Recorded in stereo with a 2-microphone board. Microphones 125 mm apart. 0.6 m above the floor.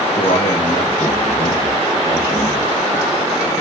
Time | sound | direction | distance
0.1 | a man speaking | 45° left (ahead or behind) | 4 m